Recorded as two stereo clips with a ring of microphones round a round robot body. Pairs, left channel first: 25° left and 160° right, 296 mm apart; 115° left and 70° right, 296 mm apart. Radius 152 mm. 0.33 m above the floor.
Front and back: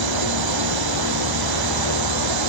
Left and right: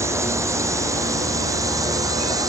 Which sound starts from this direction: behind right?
A drone, at 0.0 s.